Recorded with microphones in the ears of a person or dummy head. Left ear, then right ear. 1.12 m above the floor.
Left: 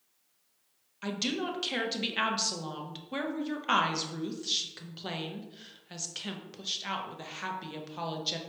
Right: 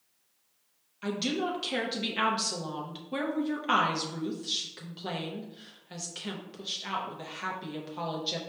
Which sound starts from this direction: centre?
A woman speaking, at 1.0 s.